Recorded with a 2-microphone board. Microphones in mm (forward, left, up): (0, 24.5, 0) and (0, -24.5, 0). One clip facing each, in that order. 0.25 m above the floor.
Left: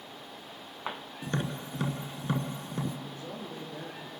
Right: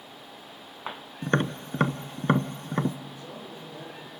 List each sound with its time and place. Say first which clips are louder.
1.2 s tapping: right 8 dB; 60° right (ahead or behind), 0.6 m
3.0 s a man speaking: left 1 dB; 40° left (ahead or behind), 4 m